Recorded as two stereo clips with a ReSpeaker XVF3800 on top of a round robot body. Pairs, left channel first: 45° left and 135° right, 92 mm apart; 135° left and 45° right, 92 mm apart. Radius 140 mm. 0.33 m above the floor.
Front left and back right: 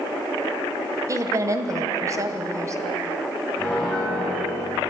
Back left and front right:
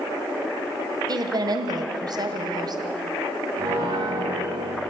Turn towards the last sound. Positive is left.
turn(degrees=-35)